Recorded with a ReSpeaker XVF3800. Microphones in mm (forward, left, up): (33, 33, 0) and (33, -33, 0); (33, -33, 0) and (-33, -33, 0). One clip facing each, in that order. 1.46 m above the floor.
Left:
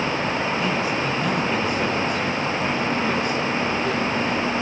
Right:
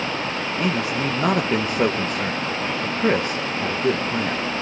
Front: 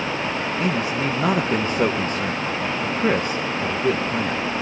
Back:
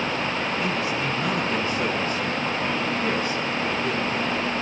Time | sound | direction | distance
0.6 | a man speaking | 50° right | 1.2 m